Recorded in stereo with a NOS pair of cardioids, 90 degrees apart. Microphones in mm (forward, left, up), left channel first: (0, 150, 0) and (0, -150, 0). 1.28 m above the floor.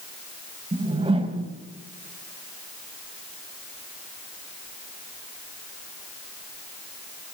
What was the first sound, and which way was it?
A whoosh, 20° right.